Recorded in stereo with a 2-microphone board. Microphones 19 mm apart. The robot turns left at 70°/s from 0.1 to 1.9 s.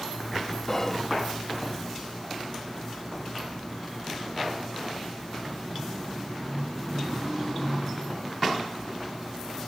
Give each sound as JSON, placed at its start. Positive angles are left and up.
{"t": 0.7, "sound": "whispering", "side_deg": 30, "distance_m": 0.8}